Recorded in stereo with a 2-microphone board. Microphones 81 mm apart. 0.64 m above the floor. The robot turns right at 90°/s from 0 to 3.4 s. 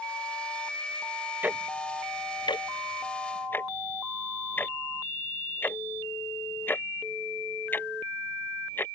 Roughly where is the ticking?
Right.